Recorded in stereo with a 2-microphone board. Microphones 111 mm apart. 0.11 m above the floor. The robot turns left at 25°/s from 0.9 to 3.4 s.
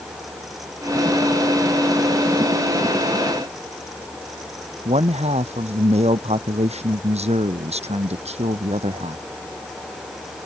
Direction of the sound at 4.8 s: 70° right (ahead or behind).